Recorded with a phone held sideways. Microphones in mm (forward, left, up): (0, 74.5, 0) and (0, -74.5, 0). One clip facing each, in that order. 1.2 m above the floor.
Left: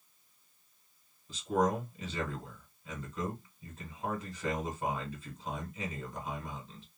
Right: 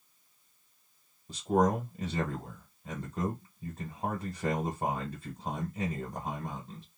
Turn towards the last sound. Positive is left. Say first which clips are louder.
# right 3 dB
turn(degrees=-45)  # may be behind; listen again after turning